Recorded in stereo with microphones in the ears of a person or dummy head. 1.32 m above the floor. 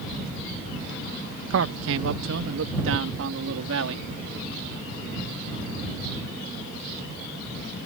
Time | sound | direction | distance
1.5 | a man speaking | 75° right (ahead or behind) | ?